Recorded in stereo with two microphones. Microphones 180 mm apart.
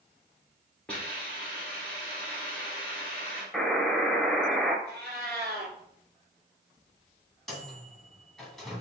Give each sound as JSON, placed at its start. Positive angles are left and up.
{"t": 0.9, "sound": "a hiss", "side_deg": 5, "distance_m": 1.9}
{"t": 3.5, "sound": "a buzzer", "side_deg": 0, "distance_m": 0.9}
{"t": 4.8, "sound": "a cat meowing", "side_deg": 5, "distance_m": 2.5}
{"t": 7.5, "sound": "a microwave", "side_deg": 0, "distance_m": 1.4}